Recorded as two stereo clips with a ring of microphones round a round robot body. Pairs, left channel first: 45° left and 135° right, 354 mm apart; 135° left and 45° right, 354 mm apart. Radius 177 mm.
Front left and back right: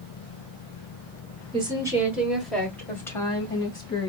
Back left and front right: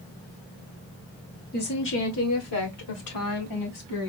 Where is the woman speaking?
165° left, 1.3 m; by 4.1 s 120° left, 2.5 m.